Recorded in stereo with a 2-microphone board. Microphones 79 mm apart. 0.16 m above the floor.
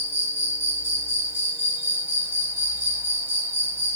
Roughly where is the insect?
Right.